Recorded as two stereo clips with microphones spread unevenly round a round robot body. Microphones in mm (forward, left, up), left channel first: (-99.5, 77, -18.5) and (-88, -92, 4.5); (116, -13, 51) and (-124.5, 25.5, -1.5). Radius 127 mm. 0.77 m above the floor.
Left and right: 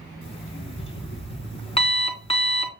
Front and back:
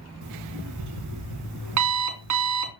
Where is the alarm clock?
150° left, 3 m.